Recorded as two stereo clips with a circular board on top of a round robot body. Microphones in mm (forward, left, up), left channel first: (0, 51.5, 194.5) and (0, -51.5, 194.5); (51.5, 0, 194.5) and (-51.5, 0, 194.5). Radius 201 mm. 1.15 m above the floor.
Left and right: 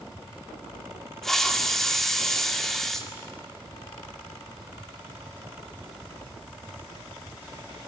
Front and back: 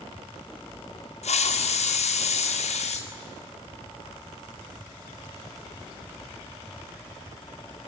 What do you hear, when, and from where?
1.2 s a hiss: 5° left, 2.0 m